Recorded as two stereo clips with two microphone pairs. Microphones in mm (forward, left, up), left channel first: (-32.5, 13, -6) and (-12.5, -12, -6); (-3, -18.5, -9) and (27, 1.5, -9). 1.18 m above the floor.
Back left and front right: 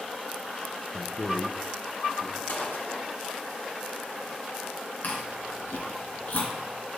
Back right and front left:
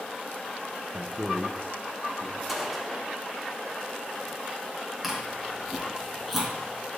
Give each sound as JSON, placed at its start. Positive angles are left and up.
{"t": 0.9, "sound": "a man speaking", "azimuth_deg": 80, "distance_m": 0.6}
{"t": 2.5, "sound": "a gunshot", "azimuth_deg": 120, "distance_m": 1.0}
{"t": 5.0, "sound": "chewing", "azimuth_deg": 120, "distance_m": 2.5}